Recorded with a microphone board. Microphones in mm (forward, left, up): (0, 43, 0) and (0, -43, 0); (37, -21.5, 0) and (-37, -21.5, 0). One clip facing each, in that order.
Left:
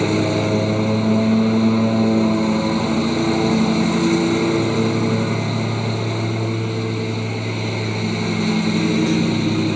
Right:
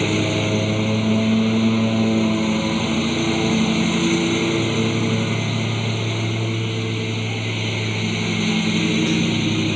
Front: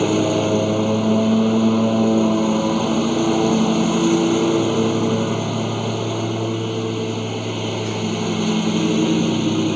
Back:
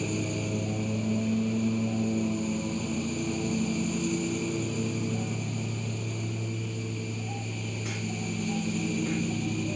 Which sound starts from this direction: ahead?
A lawn mower, at 0.0 s.